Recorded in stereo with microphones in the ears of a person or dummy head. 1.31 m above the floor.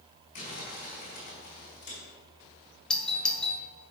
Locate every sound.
0.3 s crumpling: 50° left (ahead or behind), 3 m
2.9 s a doorbell: 5° left (ahead or behind), 0.9 m